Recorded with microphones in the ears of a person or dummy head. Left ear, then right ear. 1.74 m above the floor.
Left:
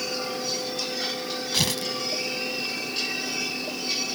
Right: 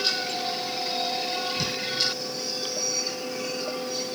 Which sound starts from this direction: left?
Tearing paper, at 1.5 s.